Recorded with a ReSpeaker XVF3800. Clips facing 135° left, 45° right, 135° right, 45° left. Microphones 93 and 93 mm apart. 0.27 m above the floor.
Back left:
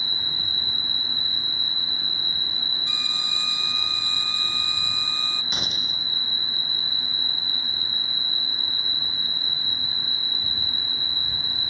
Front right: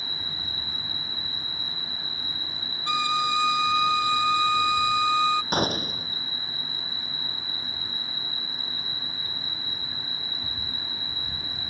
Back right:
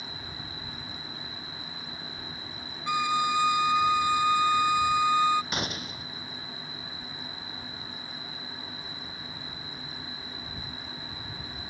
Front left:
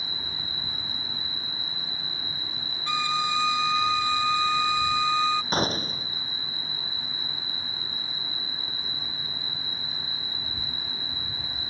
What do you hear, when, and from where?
0.0 s an insect: 40° right
2.9 s a violin: 55° right
5.5 s a gunshot: 5° right